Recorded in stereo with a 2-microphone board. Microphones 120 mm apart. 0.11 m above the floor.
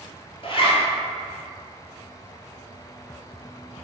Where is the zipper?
50° left (ahead or behind), 0.5 m.